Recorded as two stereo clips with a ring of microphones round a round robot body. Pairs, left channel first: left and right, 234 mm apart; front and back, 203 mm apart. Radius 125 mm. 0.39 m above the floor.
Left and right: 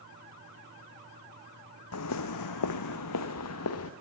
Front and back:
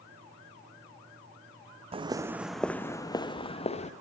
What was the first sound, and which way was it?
Footsteps, 120° left.